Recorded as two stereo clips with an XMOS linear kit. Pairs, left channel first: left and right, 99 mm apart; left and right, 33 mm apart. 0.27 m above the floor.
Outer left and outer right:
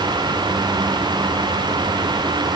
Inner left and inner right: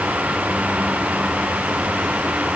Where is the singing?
No singing in this recording.